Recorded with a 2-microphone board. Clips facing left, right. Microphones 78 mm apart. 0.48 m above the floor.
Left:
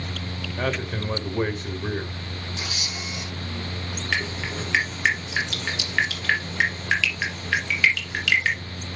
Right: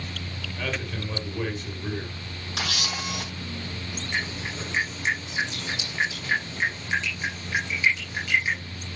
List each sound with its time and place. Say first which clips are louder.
0.6 s a man speaking: left 5 dB; 40° left (ahead or behind), 2 m
2.6 s a camera shutter: right 7 dB; 70° right (ahead or behind), 3.5 m
4.1 s dripping: left 3 dB; 75° left (ahead or behind), 3.5 m